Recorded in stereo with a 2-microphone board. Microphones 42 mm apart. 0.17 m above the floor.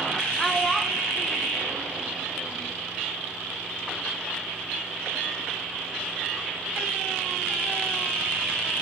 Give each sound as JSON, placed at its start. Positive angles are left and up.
{"t": 0.4, "sound": "a child speaking", "side_deg": 5, "distance_m": 1.5}